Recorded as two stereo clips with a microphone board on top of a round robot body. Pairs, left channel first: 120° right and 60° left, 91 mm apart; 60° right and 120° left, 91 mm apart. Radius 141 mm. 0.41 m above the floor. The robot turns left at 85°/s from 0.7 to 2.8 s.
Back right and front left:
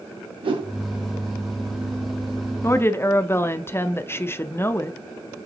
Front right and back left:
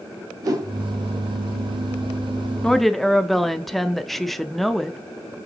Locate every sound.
0.4 s a whoosh: 75° left, 2.0 m; by 0.7 s 70° left, 2.0 m
2.6 s a woman speaking: 130° right, 0.8 m; by 5.0 s 145° right, 0.8 m